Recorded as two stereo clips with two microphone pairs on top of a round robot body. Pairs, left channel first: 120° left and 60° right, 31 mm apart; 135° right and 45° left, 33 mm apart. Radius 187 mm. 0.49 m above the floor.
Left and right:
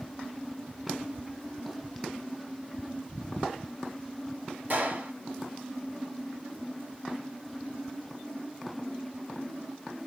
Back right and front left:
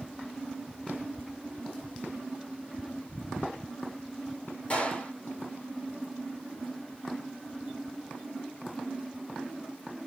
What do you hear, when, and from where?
4.7 s a gunshot: 80° right, 2 m